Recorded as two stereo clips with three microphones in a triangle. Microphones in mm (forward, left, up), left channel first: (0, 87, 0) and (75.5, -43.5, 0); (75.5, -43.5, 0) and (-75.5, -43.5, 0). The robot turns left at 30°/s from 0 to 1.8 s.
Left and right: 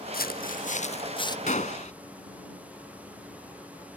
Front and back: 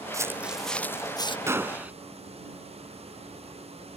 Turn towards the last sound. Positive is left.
turn(degrees=100)